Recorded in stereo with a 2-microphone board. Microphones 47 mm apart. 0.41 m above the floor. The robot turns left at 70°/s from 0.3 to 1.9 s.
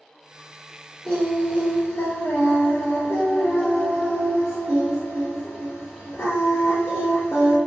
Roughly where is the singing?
Behind.